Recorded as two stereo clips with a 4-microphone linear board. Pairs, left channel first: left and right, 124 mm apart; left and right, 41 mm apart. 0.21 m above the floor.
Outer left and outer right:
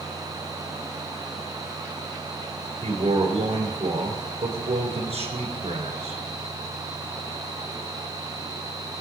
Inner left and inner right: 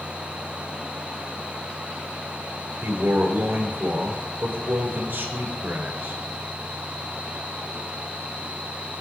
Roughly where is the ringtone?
I don't hear a ringtone.